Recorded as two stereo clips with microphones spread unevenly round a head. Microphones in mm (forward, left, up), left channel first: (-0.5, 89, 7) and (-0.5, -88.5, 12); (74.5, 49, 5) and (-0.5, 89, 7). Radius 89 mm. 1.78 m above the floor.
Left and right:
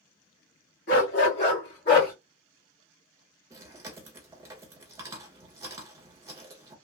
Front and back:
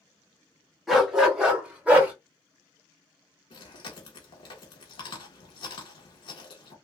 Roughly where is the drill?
I don't hear a drill.